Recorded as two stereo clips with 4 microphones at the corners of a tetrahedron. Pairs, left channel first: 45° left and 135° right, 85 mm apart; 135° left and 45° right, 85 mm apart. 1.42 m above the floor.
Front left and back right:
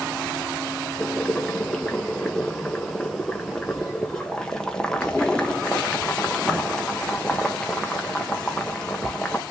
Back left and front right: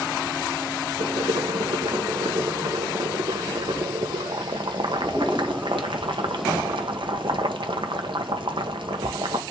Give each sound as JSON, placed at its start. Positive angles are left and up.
{"t": 1.0, "sound": "boiling", "azimuth_deg": -35, "distance_m": 1.4}